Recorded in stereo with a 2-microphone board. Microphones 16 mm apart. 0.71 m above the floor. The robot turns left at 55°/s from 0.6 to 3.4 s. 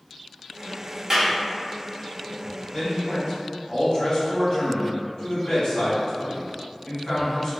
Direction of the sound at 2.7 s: 115° left.